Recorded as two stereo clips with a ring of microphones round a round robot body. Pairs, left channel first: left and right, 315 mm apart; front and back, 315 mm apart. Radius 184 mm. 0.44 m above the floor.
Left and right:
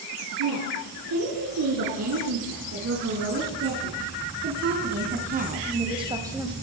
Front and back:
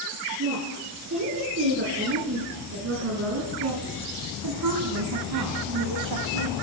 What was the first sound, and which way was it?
A woman speaking, 125° right.